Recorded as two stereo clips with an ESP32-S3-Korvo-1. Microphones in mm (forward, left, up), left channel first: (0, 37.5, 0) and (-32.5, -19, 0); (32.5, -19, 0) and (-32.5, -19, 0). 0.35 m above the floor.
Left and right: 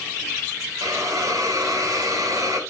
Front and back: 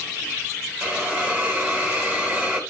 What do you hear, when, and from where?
0.8 s a hiss: 115° right, 3 m